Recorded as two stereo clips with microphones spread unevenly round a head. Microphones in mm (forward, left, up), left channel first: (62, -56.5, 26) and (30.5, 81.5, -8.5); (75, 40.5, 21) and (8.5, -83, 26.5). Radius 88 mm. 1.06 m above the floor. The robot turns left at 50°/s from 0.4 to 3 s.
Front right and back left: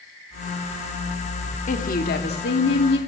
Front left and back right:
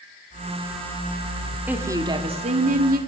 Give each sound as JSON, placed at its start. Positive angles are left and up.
{"t": 1.7, "sound": "a woman speaking", "azimuth_deg": -40, "distance_m": 3.0}